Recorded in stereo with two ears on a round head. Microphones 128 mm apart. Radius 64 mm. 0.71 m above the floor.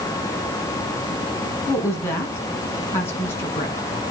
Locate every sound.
1.7 s a woman speaking: 20° left (ahead or behind), 5.5 m